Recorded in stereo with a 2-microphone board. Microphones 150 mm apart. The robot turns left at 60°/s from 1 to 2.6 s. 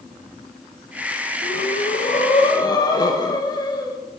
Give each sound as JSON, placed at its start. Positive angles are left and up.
{"t": 1.4, "sound": "breathing", "azimuth_deg": 100, "distance_m": 0.7}